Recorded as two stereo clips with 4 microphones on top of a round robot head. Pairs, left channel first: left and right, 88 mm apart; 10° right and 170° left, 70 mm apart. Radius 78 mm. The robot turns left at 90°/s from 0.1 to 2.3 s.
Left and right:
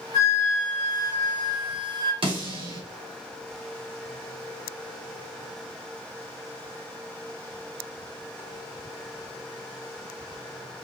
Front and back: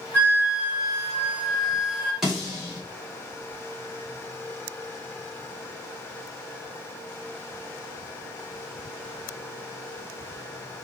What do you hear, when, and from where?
0.1 s a flute: 50° left, 1.8 m; by 2.1 s 130° right, 1.8 m
2.2 s a snare drum: 105° right, 2 m; by 2.8 s 110° right, 2 m